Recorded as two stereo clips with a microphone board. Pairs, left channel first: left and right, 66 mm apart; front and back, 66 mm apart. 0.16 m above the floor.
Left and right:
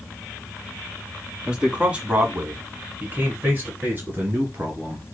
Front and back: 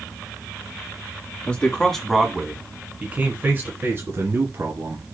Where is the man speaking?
35° right, 1.4 m; by 5.0 s 145° right, 2.5 m.